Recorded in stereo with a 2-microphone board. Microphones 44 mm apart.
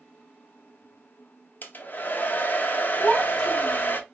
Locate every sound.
1.6 s a hair dryer: 45° left (ahead or behind), 0.5 m
3.0 s a child speaking: 5° left (ahead or behind), 1.1 m